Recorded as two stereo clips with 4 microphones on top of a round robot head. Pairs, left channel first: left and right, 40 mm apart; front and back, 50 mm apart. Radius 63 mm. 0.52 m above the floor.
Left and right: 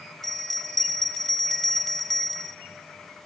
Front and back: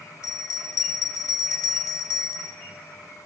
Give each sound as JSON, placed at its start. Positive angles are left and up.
{"t": 0.2, "sound": "a bell", "azimuth_deg": 5, "distance_m": 1.2}